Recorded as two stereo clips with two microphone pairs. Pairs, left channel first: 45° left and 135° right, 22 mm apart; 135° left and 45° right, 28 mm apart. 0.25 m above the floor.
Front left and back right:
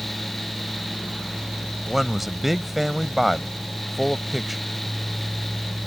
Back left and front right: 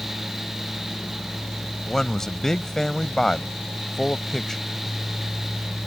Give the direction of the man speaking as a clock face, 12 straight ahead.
7 o'clock.